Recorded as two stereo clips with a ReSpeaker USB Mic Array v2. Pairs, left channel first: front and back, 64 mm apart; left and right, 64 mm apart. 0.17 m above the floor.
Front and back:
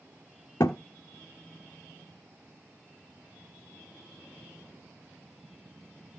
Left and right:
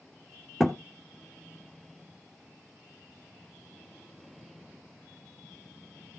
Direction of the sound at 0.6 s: Straight ahead.